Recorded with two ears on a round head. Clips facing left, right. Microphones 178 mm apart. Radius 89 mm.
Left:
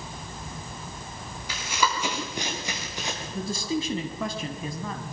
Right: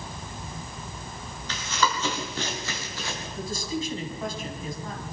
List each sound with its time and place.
1.5 s running footsteps: 10° left (ahead or behind), 6 m; by 3.2 s 15° left (ahead or behind), 5.5 m
3.4 s a man speaking: 55° left (ahead or behind), 3 m